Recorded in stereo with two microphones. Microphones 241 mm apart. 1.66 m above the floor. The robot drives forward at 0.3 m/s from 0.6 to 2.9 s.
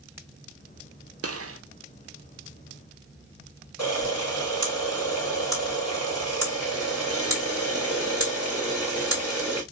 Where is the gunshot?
75° right (ahead or behind), 0.6 m; by 1.6 s 65° right (ahead or behind), 0.6 m.